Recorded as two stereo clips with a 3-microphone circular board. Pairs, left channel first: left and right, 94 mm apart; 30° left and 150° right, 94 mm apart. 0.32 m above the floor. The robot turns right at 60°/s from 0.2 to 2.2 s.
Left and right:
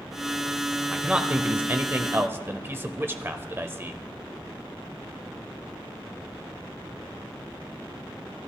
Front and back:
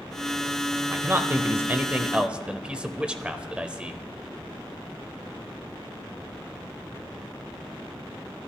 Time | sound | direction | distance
0.9 | a man speaking | 165° right | 0.9 m